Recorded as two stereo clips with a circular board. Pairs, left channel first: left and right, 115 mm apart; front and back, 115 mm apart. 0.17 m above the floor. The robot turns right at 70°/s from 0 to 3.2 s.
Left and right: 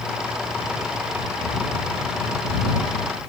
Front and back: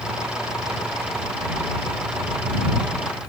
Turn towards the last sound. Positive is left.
No sound to turn to.